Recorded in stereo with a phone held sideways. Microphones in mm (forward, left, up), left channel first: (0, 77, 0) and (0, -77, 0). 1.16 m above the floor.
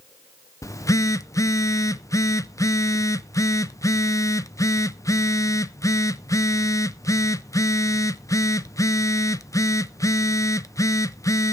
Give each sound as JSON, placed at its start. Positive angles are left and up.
{"t": 0.6, "sound": "a phone buzzing", "side_deg": 20, "distance_m": 0.5}